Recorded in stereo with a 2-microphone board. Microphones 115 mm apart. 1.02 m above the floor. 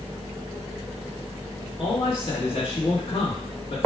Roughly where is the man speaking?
Left.